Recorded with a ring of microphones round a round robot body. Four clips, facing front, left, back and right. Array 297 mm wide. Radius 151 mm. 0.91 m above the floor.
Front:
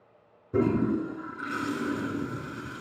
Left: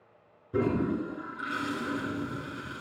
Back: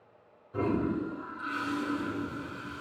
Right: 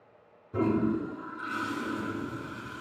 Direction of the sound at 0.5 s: 15° left.